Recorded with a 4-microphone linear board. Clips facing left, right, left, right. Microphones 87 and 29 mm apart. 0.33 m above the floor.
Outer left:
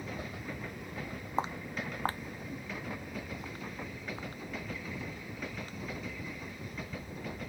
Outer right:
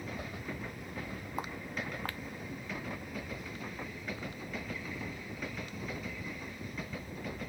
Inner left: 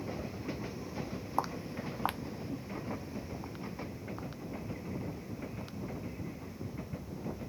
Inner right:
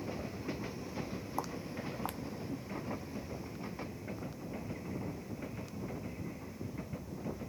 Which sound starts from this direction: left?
Footsteps, at 1.4 s.